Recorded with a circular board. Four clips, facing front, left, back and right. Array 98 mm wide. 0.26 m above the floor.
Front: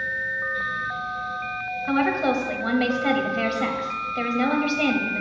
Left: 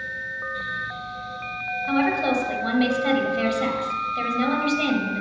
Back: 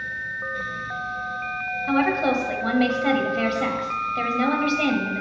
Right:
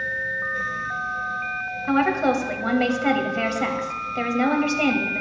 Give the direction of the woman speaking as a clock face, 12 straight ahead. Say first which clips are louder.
Right 2 dB, back 1 dB; 3 o'clock.